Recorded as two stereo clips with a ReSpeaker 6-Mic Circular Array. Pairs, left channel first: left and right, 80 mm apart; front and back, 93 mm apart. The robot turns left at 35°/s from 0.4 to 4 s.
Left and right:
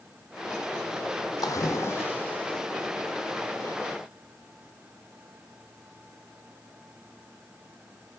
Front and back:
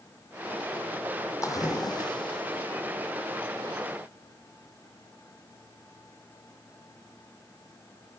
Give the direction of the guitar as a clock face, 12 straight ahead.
I don't hear a guitar.